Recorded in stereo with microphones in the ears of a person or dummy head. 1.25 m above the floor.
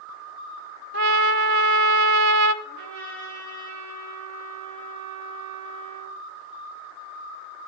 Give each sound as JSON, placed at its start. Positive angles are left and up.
{"t": 0.9, "sound": "a trumpet", "side_deg": -60, "distance_m": 0.6}
{"t": 2.6, "sound": "a trumpet", "side_deg": -55, "distance_m": 6.5}